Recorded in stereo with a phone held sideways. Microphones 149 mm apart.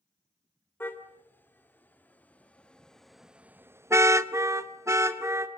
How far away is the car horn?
About 2 m.